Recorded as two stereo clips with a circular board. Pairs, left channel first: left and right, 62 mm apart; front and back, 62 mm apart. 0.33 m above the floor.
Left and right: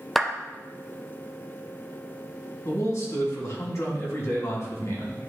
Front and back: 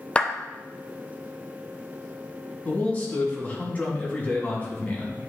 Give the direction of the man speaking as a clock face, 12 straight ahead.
10 o'clock.